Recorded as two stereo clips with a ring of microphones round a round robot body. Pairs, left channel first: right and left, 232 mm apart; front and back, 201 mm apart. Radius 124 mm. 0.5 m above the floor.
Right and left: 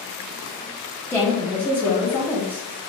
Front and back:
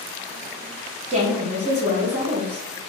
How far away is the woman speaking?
About 0.9 m.